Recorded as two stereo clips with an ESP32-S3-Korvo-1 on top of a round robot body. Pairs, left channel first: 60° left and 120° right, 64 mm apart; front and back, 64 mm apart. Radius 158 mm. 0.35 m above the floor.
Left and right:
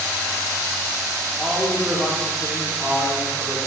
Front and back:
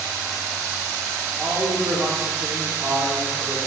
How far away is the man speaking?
About 2 m.